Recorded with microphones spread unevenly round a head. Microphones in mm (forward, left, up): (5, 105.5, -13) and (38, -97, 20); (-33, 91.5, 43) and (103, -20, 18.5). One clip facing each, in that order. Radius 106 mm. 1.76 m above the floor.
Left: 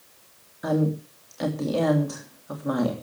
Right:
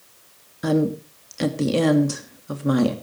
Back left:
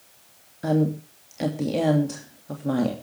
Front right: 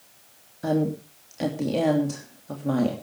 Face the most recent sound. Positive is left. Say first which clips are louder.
# right 4 dB, back left 1 dB
turn(degrees=-135)